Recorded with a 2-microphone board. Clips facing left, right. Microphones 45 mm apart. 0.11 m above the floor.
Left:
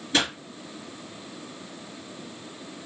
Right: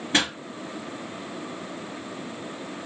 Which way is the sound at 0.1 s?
30° right (ahead or behind).